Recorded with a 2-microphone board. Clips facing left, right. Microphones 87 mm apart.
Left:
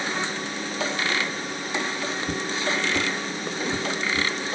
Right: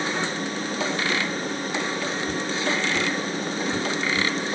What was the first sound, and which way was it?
Footsteps, 65° left (ahead or behind).